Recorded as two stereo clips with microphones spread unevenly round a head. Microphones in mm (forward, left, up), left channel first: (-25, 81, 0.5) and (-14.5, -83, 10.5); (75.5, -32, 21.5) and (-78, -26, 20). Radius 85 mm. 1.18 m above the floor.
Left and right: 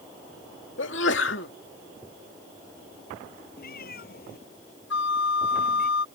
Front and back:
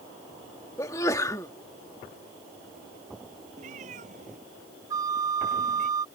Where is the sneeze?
70° left.